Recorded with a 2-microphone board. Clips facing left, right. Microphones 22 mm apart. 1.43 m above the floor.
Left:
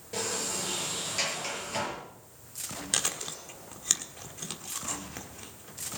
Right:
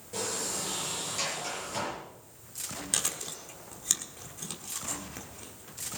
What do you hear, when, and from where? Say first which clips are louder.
0.1 s a sliding door: left 1 dB; 20° left (ahead or behind), 7 m
2.9 s chewing: left 2 dB; 20° left (ahead or behind), 1.4 m